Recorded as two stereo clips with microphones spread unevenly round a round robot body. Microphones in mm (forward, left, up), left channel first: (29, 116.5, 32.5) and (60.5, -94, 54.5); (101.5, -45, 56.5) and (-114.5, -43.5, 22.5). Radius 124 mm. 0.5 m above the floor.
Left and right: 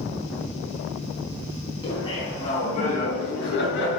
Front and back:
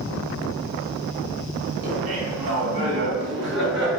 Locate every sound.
1.8 s laughter: 170° left, 5 m; by 4.0 s 135° left, 4 m